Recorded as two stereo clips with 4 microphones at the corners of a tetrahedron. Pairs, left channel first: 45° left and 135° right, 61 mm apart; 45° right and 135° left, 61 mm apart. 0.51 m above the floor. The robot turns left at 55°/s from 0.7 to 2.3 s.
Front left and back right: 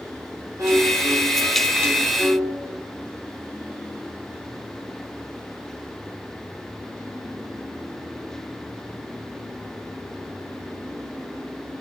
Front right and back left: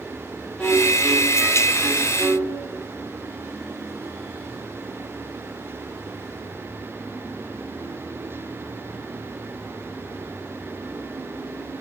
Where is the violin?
110° right, 3 m; by 2.7 s 160° left, 3 m.